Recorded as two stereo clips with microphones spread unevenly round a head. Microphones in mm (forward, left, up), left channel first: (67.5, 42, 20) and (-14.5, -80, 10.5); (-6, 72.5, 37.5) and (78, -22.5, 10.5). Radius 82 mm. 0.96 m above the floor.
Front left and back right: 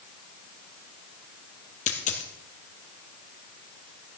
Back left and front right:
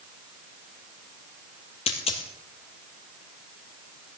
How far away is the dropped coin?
About 2.5 m.